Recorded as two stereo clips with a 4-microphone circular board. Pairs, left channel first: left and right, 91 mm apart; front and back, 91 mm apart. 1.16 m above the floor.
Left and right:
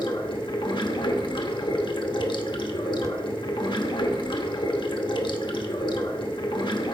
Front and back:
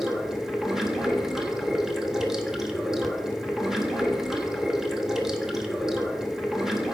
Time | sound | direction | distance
0.0 | running water | 95° left | 0.8 m